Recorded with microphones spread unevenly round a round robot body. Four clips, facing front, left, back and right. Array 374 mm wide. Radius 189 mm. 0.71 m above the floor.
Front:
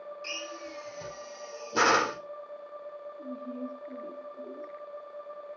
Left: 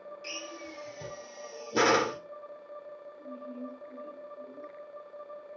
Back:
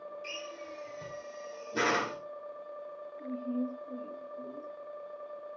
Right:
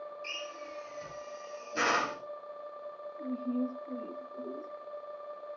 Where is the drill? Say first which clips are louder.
Even, front 2 dB; 70° left, 1.9 m.